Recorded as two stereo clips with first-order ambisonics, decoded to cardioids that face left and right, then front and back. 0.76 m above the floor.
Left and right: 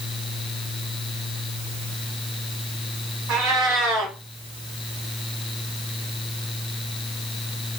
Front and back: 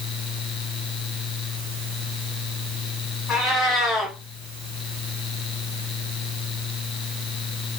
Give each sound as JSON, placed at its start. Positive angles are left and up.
{"t": 3.3, "sound": "a cat meowing", "azimuth_deg": -55, "distance_m": 1.4}